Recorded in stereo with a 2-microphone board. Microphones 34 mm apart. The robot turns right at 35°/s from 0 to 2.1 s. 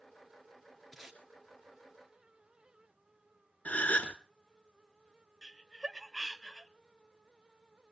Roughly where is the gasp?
Left.